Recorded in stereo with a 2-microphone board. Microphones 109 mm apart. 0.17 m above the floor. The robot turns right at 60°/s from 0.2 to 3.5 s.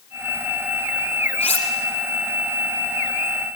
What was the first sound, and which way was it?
Cutlery clinking, 75° left (ahead or behind).